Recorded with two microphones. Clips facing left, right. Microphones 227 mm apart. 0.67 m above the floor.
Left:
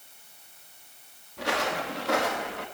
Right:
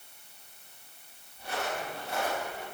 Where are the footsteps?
80° left, 4 m; by 2.6 s 70° left (ahead or behind), 4.5 m.